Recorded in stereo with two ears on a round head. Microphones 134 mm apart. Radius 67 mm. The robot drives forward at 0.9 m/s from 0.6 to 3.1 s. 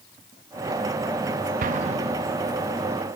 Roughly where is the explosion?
Right.